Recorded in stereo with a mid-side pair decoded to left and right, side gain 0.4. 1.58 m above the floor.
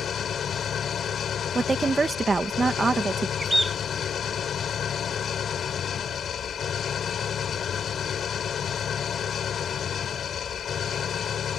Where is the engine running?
60° left.